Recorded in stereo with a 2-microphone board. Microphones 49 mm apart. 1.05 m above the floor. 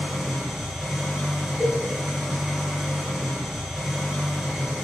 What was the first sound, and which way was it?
An engine running, 10° right (ahead or behind).